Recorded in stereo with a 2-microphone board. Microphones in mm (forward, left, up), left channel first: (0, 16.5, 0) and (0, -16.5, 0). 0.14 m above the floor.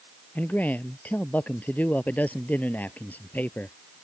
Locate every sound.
0.3 s a man speaking: 55° left (ahead or behind)